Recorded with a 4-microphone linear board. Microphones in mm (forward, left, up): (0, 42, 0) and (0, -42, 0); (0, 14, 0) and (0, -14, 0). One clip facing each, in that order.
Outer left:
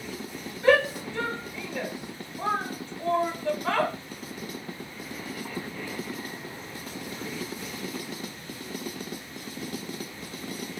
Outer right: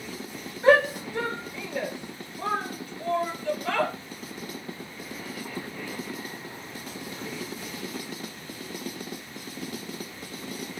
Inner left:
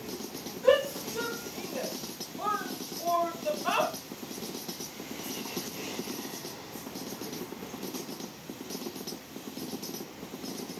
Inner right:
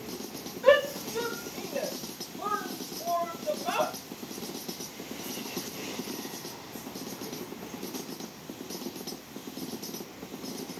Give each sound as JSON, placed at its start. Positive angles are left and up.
{"t": 0.6, "sound": "a shout", "side_deg": -25, "distance_m": 1.6}